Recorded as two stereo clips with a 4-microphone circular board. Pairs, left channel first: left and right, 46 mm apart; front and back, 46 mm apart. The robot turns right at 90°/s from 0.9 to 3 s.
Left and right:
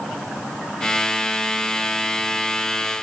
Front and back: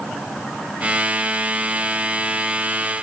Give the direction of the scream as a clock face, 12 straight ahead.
I don't hear a scream.